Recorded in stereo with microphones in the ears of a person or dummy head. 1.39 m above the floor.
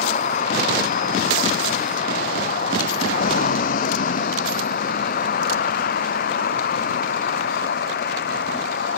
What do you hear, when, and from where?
0.0 s a vehicle: 50° left (ahead or behind); by 9.0 s 55° left (ahead or behind)